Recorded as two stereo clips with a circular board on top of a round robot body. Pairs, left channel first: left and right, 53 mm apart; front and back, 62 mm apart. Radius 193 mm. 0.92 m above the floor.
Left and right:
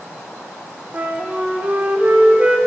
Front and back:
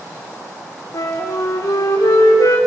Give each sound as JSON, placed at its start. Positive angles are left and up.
{"t": 0.9, "sound": "a flute", "azimuth_deg": -25, "distance_m": 3.5}